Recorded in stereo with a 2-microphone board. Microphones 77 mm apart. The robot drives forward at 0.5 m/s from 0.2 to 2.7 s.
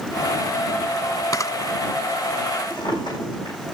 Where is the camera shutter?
50° left (ahead or behind), 0.6 m; by 1.5 s 45° left (ahead or behind), 0.6 m.